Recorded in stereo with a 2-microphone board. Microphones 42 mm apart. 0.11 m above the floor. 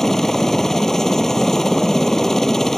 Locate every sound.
0.0 s a helicopter: 10° left (ahead or behind)